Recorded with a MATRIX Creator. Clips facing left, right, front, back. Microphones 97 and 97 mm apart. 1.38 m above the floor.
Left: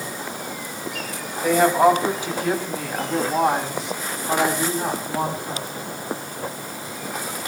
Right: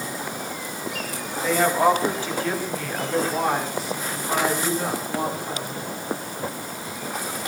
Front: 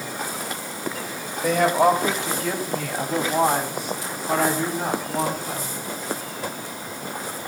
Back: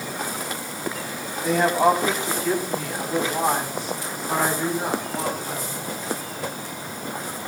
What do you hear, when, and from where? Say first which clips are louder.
1.4 s a woman speaking: left 3 dB, front 1 dB; 15° left, 7 m; by 5.8 s 30° left, 9.5 m